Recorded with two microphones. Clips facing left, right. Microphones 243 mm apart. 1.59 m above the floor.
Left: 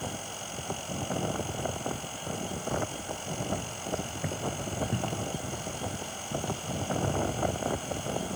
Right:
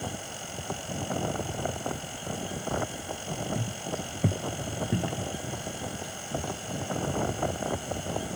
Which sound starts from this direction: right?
Footsteps, at 3.5 s.